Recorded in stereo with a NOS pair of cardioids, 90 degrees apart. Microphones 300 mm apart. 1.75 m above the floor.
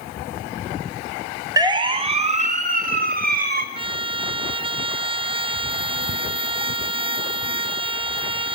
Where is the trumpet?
20° right, 0.5 m.